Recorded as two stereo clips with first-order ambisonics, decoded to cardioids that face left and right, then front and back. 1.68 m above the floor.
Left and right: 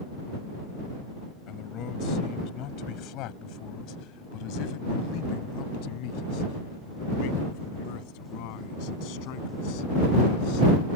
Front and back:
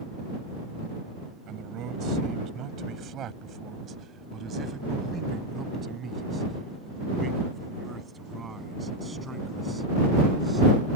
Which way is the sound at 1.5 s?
135° left.